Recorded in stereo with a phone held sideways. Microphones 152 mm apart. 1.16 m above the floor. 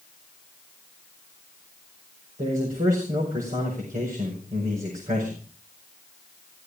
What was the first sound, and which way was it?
A man speaking, 65° right (ahead or behind).